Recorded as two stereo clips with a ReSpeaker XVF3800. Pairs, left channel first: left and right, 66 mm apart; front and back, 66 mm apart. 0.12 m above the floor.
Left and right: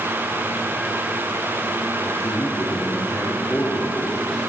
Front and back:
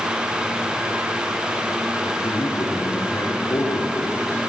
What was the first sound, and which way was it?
A man speaking, 30° left.